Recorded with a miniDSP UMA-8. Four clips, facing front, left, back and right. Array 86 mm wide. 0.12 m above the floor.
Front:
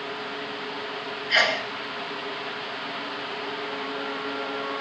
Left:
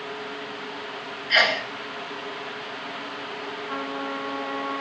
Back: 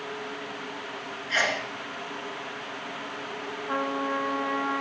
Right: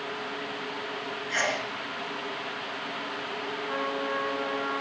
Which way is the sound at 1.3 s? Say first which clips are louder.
Left 7 dB, front 3 dB; 60° left.